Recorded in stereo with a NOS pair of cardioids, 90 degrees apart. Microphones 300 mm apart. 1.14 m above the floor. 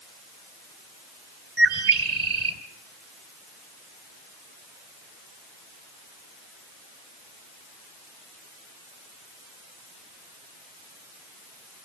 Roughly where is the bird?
Ahead right.